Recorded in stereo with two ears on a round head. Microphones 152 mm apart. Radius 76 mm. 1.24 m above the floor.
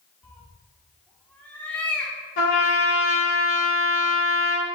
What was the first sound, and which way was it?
A cat meowing, 10° left (ahead or behind).